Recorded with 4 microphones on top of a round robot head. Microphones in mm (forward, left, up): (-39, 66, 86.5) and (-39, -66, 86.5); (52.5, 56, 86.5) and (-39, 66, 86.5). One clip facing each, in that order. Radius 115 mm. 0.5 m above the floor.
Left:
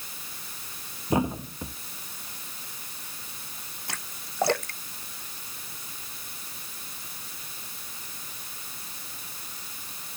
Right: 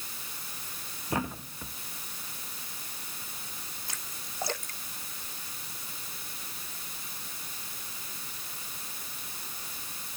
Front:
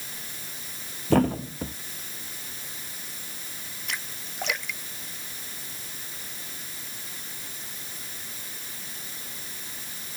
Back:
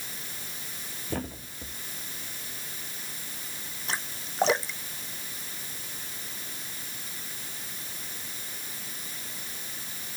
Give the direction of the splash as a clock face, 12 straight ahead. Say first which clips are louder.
Left 3 dB, back 2 dB; 8 o'clock.